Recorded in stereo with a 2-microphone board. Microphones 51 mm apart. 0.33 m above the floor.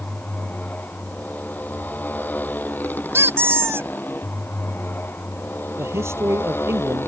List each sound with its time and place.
0.0 s a motorcycle: 30° left (ahead or behind); by 7.1 s 50° left (ahead or behind)
3.1 s a squeak: 55° right (ahead or behind)
5.8 s a man speaking: 60° right (ahead or behind)